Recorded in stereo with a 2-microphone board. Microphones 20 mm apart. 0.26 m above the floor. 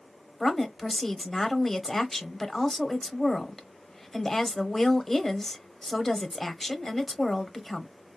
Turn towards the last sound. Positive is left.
turn(degrees=10)  # may be behind; listen again after turning